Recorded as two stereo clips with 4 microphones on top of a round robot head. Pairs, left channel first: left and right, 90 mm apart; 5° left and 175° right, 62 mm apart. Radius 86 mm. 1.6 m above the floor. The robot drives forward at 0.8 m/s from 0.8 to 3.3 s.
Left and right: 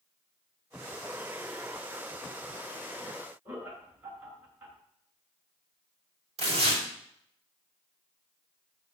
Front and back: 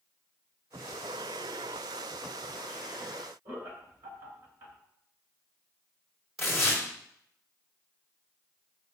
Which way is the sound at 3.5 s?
160° right.